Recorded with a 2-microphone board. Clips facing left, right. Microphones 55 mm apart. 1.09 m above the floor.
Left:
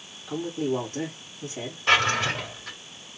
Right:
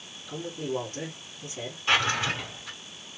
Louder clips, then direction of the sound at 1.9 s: Left 3 dB; 65° left (ahead or behind).